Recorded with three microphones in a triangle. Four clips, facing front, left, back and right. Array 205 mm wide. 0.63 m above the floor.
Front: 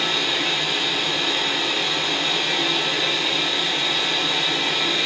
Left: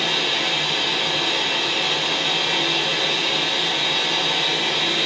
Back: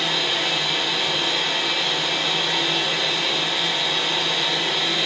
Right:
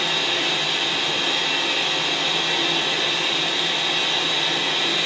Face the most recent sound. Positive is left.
turn(degrees=80)